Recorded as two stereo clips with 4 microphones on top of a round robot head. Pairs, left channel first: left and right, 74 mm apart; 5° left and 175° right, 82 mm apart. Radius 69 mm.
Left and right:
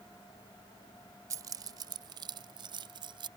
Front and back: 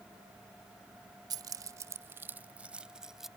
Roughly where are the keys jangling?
Behind right.